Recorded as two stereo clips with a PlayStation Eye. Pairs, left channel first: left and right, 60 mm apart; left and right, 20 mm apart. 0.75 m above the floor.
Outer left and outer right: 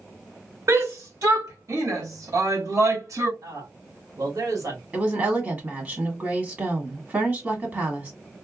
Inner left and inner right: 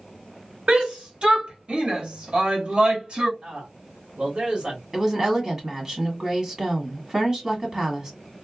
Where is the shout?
55° right (ahead or behind), 2 m.